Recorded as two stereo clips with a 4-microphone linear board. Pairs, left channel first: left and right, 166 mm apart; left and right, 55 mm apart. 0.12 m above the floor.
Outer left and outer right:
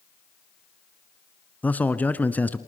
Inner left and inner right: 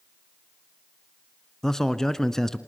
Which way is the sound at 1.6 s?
10° left (ahead or behind).